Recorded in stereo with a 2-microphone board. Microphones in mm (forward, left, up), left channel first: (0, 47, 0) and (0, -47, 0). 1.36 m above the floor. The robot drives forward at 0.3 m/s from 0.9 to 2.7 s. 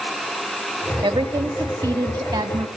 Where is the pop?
No pop in this recording.